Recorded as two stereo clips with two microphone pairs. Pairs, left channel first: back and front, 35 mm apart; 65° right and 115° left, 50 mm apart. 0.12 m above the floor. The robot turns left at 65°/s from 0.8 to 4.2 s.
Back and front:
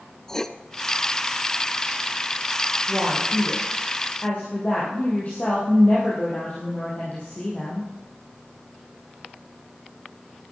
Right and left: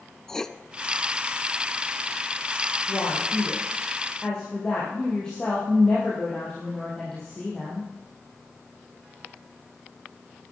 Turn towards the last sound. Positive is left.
turn(degrees=-140)